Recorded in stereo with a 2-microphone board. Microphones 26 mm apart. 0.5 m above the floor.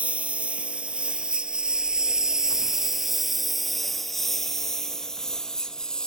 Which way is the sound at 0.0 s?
50° right (ahead or behind).